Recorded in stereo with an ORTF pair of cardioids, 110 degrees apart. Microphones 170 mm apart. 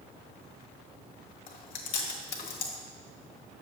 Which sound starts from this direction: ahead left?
Chewing, at 1.5 s.